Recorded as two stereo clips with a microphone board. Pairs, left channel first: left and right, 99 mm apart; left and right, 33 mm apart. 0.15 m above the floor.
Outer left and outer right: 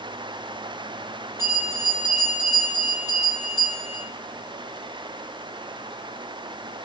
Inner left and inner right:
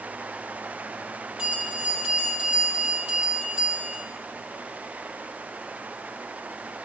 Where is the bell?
25° right (ahead or behind), 5.5 m.